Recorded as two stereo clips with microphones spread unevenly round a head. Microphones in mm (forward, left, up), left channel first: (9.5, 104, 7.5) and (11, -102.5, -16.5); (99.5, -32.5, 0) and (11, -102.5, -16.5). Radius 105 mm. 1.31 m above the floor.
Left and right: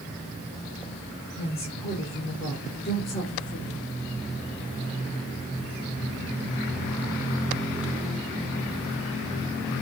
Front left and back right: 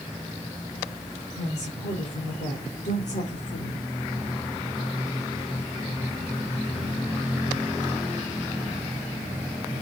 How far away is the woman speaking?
About 6 m.